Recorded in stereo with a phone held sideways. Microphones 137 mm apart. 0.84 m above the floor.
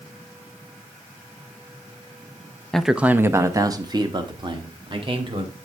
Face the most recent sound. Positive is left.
turn(degrees=-40)  # may be behind; listen again after turning